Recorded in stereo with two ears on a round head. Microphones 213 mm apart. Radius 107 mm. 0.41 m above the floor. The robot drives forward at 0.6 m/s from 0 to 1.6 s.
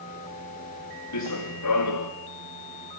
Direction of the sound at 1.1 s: 80° left.